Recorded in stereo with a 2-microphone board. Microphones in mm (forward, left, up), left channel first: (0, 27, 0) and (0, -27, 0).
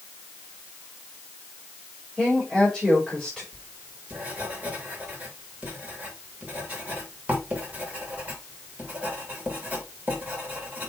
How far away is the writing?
About 3 m.